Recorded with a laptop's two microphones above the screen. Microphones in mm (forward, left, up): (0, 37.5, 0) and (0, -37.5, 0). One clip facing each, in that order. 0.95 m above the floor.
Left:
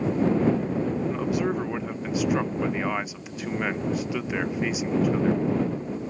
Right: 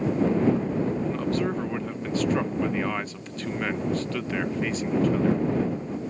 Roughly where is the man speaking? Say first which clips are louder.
Left 1 dB; centre.